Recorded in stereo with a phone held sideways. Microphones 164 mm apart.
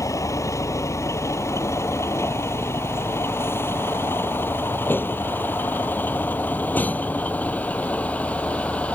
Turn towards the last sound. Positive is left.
turn(degrees=10)  # may be behind; listen again after turning